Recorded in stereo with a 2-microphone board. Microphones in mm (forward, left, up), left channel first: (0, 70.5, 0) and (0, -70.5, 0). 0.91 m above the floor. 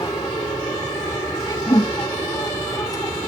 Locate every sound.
0.0 s an aircraft: 25° left (ahead or behind)
1.7 s a whoosh: 40° left (ahead or behind)